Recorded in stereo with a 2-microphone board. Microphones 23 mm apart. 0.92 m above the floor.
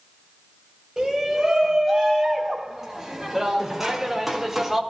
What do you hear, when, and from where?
1.0 s a shout: 15° right (ahead or behind), 4.5 m; by 4.8 s 5° right (ahead or behind), 2 m